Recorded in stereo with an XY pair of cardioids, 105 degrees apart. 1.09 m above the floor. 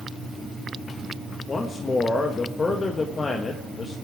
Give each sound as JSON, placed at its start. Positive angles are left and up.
{"t": 1.5, "sound": "a man speaking", "azimuth_deg": 35, "distance_m": 1.3}